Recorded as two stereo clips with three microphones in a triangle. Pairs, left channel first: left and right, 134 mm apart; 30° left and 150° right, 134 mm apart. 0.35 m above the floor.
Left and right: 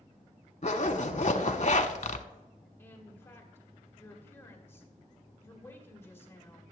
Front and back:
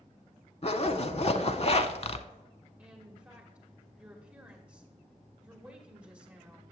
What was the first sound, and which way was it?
A zipper, 65° left.